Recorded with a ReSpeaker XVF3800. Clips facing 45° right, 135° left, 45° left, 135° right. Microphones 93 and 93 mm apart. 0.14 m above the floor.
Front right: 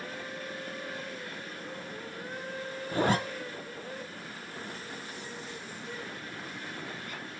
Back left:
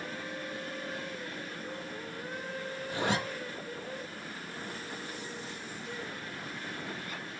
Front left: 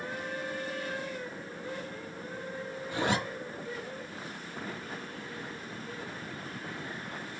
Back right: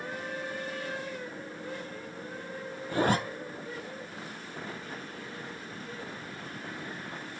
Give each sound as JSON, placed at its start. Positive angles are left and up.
{"t": 2.9, "sound": "a zipper", "azimuth_deg": -90, "distance_m": 0.7}